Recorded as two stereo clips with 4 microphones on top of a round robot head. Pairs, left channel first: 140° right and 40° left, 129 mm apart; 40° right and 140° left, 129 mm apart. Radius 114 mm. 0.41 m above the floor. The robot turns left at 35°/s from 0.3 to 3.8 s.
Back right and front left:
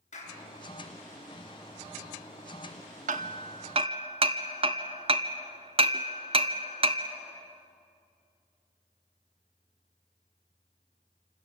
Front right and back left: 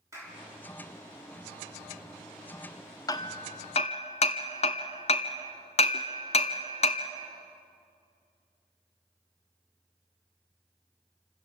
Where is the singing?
No singing in this recording.